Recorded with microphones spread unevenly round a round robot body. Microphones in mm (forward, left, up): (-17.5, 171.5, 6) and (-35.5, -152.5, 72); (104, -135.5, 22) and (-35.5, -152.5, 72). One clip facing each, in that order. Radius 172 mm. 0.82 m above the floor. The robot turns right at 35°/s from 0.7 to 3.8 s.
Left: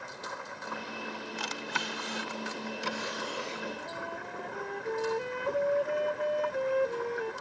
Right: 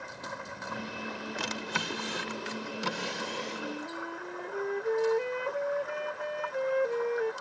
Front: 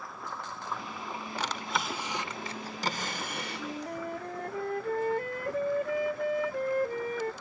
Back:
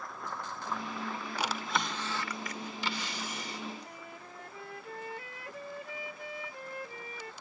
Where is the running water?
80° right; by 7.4 s 25° left.